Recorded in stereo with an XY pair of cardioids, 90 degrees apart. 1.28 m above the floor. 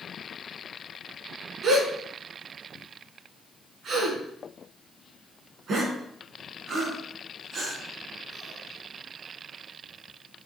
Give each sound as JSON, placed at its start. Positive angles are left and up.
{"t": 1.6, "sound": "a gasp", "azimuth_deg": -65, "distance_m": 4.0}